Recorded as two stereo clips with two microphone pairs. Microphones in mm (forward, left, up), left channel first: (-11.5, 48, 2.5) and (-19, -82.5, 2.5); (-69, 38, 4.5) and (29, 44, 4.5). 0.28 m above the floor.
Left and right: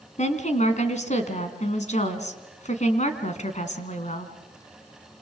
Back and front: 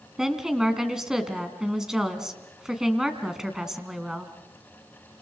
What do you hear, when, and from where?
0.2 s a woman speaking: 90° left, 3 m